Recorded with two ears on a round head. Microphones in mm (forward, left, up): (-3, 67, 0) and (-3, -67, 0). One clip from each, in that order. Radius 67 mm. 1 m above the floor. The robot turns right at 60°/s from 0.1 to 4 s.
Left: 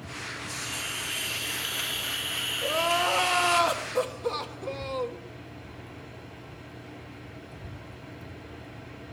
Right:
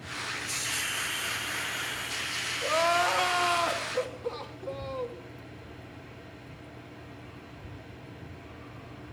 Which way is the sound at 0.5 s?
35° right.